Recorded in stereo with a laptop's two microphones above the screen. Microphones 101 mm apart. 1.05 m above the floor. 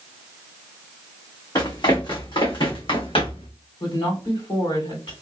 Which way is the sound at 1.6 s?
45° left (ahead or behind).